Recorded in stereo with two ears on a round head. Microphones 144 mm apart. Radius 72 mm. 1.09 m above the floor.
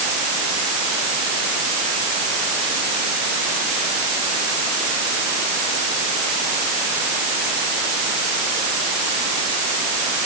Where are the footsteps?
I don't hear footsteps.